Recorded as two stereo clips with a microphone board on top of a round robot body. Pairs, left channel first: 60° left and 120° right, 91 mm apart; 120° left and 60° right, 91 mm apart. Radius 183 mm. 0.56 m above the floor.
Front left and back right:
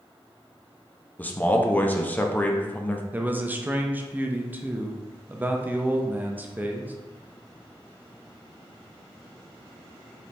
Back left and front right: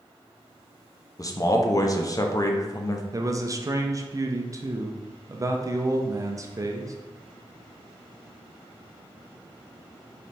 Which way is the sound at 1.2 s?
120° left.